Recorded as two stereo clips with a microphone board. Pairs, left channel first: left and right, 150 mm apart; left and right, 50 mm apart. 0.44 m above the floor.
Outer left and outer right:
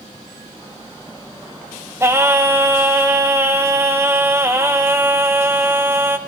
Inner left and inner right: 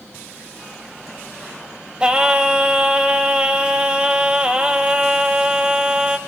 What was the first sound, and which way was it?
Singing, 20° right (ahead or behind).